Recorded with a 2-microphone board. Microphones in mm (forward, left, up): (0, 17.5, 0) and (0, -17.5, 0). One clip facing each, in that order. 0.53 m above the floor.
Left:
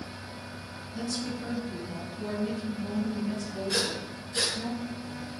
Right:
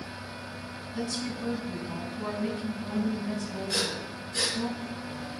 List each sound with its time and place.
0.9 s a woman speaking: 75° right (ahead or behind), 4 m
3.7 s breathing: 10° left (ahead or behind), 3 m